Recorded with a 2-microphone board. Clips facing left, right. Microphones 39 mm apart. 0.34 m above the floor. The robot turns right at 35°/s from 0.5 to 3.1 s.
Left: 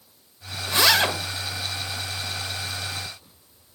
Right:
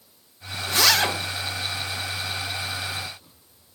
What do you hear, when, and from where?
0.7 s a zipper: 25° left (ahead or behind), 1.1 m; by 1.1 s 20° left (ahead or behind), 1.1 m